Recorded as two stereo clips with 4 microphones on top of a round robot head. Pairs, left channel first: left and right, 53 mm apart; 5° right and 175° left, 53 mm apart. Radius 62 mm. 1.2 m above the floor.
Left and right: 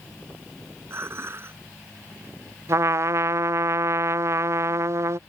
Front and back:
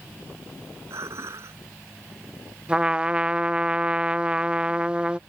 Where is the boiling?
No boiling in this recording.